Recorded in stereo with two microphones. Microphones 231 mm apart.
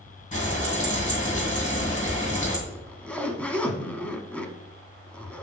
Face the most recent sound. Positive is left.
turn(degrees=5)  # may be behind; listen again after turning